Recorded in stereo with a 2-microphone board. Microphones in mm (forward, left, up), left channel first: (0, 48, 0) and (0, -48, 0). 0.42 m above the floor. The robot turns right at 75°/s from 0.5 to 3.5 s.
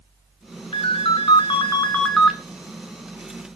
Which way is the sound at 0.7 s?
65° left.